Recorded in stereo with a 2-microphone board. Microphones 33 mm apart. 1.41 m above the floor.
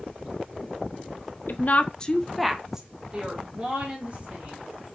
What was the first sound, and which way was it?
A woman speaking, 55° left (ahead or behind).